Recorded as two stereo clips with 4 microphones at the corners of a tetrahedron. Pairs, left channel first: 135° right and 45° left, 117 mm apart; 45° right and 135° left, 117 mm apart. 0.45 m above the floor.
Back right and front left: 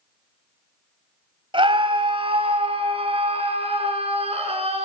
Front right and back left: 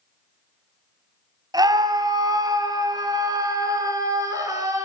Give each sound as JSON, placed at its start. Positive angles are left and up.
{"t": 1.5, "sound": "a scream", "azimuth_deg": 85, "distance_m": 3.0}